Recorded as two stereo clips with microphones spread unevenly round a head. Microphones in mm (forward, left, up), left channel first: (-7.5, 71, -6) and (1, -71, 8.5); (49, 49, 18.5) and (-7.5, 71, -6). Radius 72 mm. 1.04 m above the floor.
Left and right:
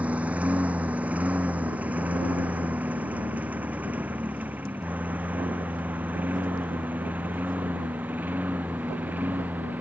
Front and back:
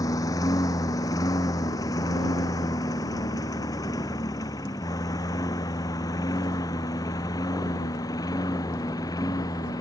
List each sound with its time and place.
0.0 s a lawn mower: 5° right; by 9.8 s 10° right